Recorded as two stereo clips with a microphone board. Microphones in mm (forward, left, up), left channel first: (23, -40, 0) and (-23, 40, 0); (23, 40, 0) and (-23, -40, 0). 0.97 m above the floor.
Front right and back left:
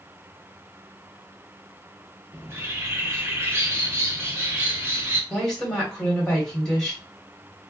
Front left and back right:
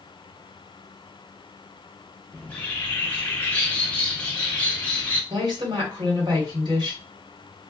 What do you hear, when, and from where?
2.3 s a bird: 115° left, 0.7 m
5.3 s a woman speaking: 145° right, 1.7 m